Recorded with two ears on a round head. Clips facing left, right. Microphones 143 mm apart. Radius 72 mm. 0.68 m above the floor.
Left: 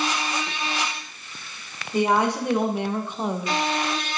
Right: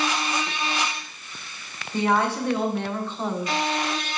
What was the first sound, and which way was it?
A woman speaking, 15° left (ahead or behind).